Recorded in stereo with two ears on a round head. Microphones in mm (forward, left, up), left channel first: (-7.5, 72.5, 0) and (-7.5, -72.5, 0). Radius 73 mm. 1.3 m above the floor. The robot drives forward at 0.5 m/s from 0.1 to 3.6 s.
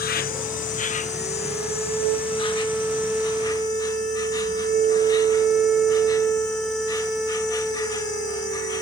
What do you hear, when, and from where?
0.0 s an insect: 60° left (ahead or behind); by 8.8 s 25° left (ahead or behind)